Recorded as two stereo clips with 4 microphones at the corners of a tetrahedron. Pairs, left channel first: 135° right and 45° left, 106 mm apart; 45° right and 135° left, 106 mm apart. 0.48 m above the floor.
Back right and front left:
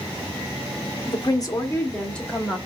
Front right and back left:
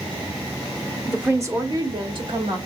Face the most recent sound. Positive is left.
turn(degrees=135)